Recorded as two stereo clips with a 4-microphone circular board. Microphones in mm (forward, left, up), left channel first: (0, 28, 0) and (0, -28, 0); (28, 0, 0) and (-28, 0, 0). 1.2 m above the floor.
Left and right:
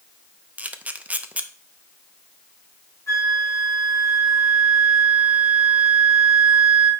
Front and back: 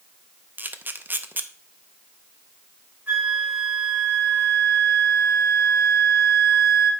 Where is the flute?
120° left, 4.5 m.